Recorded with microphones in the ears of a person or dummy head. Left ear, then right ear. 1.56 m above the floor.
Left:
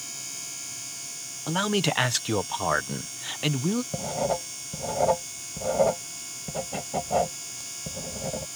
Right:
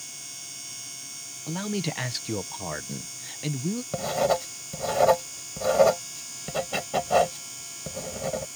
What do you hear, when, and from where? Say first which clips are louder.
1.5 s a man speaking: left 7 dB; 40° left (ahead or behind)
3.9 s writing: right 7 dB; 60° right (ahead or behind)